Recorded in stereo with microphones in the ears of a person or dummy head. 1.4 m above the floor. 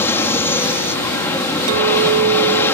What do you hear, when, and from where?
0.0 s an aircraft: 15° left (ahead or behind)
1.7 s a clink: 65° right (ahead or behind)